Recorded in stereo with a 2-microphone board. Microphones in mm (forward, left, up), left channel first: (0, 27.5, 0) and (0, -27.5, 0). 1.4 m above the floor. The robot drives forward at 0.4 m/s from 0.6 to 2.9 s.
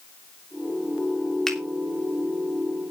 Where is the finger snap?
10° left (ahead or behind), 3 m.